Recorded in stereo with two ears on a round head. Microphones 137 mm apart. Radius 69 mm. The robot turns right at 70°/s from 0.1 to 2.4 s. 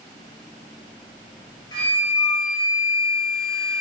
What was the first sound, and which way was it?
A flute, 30° left.